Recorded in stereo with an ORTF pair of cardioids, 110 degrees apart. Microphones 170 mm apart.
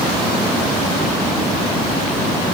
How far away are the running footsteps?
I don't hear running footsteps.